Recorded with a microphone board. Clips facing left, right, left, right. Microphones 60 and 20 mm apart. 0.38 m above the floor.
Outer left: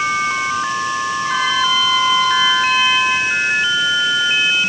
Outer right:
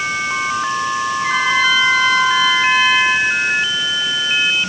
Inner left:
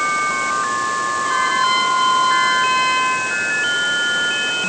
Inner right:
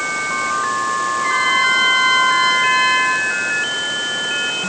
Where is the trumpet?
70° right (ahead or behind), 8.5 m.